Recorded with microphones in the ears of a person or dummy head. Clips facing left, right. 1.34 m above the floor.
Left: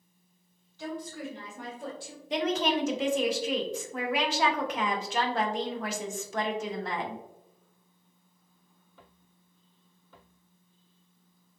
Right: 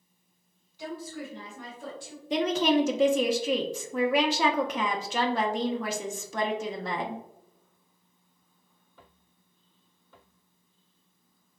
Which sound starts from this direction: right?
A woman speaking, at 2.3 s.